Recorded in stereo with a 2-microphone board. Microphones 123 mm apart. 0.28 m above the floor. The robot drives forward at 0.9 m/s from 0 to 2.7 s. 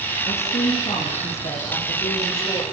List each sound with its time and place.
0.2 s a woman speaking: 65° left (ahead or behind), 6 m; by 2.6 s 50° left (ahead or behind), 7 m